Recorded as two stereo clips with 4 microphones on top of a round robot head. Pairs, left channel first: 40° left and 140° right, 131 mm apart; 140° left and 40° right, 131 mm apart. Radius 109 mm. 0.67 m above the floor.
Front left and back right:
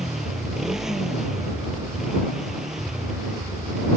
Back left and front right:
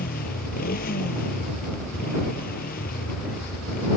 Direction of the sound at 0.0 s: 135° left.